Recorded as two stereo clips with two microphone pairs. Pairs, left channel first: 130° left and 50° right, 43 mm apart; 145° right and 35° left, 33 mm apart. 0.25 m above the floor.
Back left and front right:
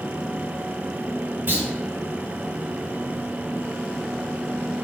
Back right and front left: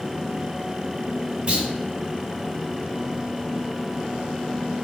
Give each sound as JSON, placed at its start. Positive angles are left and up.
{"t": 1.5, "sound": "a clunk", "azimuth_deg": -15, "distance_m": 1.4}